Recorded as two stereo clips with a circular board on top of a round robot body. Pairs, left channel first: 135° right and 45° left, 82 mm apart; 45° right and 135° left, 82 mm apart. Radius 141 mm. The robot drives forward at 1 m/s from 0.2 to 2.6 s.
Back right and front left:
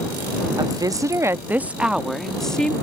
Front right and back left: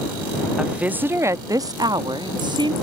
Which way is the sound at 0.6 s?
55° left.